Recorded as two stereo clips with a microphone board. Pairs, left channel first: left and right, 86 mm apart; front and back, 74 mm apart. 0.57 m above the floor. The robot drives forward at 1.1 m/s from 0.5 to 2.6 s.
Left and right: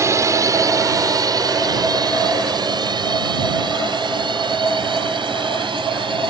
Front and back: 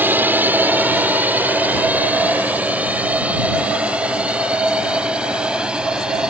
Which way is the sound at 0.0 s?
125° right.